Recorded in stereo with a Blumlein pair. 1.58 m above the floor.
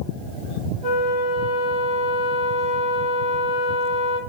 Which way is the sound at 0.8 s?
35° left.